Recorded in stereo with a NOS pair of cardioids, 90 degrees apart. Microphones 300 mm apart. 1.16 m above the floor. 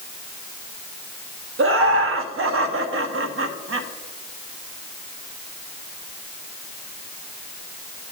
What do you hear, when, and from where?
1.6 s laughter: 50° right, 1.1 m